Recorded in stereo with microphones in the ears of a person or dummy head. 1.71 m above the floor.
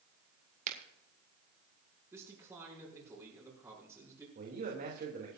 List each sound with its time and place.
0.7 s a finger snap: 40° right (ahead or behind), 2 m
2.1 s a man speaking: 10° right (ahead or behind), 6.5 m
4.3 s a man speaking: 40° right (ahead or behind), 3 m